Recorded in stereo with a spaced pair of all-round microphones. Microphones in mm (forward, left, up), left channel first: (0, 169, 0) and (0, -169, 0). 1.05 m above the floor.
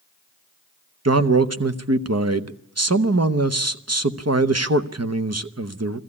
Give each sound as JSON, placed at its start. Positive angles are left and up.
{"t": 1.1, "sound": "a man speaking", "side_deg": -50, "distance_m": 0.9}